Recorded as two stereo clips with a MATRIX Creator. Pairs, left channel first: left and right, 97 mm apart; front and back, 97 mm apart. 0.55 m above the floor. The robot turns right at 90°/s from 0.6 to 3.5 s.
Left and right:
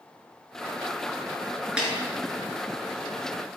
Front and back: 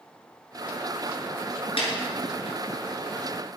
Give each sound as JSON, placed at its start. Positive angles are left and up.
{"t": 1.8, "sound": "a snare drum", "azimuth_deg": -10, "distance_m": 2.5}